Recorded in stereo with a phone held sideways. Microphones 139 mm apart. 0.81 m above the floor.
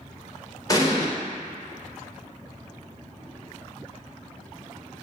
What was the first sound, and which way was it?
An explosion, 25° left (ahead or behind).